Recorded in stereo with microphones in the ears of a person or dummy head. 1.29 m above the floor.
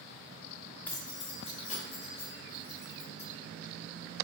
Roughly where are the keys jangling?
Centre.